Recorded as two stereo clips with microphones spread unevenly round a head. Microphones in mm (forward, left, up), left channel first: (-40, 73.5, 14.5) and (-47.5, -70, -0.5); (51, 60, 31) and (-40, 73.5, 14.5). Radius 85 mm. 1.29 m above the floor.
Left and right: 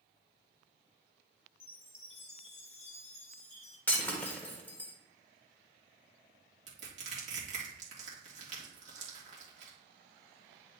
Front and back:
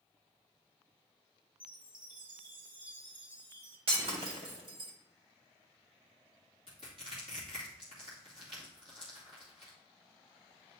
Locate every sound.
1.6 s a chime: 135° left, 1.8 m
3.9 s breaking glass: 160° left, 1.6 m
6.7 s crushing: 135° right, 2 m